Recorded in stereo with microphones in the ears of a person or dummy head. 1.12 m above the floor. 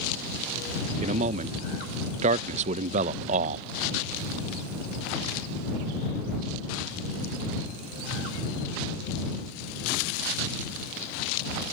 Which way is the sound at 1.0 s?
40° right (ahead or behind).